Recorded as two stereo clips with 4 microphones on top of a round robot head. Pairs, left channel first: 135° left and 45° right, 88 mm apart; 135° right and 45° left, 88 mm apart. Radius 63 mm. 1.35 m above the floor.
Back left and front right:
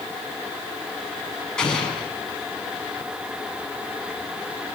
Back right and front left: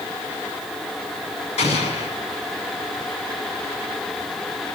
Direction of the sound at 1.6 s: 145° right.